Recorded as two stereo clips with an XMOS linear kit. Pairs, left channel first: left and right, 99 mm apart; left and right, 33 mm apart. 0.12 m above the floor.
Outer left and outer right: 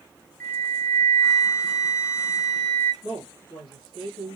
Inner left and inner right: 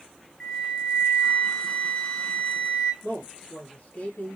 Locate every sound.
0.4 s a flute: 25° left (ahead or behind), 0.5 m
3.0 s a man speaking: 55° left (ahead or behind), 2 m